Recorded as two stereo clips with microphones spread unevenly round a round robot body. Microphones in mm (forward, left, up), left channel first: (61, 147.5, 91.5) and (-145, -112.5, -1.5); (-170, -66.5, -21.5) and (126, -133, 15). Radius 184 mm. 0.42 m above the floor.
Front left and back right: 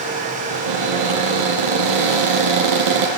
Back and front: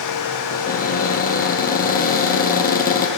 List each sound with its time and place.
0.5 s a cupboard door: 130° right, 7.5 m